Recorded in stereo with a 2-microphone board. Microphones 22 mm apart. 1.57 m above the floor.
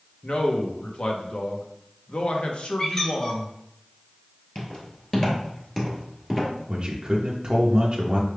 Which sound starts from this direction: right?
A man speaking, at 6.7 s.